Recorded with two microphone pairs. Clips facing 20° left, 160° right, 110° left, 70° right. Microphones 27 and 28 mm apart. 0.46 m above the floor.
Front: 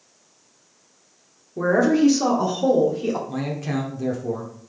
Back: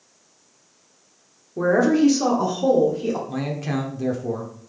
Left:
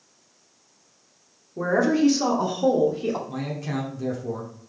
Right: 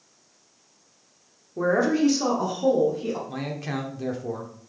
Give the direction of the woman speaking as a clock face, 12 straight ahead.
3 o'clock.